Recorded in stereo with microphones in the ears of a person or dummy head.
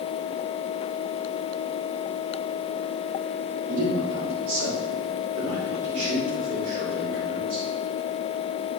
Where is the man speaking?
80° right, 4 m; by 7.7 s 75° right (ahead or behind), 6.5 m.